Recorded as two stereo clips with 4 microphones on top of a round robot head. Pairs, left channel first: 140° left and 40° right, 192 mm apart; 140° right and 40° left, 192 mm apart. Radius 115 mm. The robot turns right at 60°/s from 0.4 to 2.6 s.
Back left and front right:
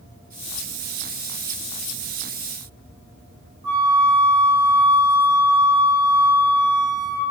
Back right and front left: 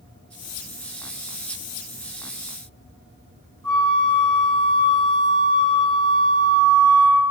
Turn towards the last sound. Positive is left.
turn(degrees=-90)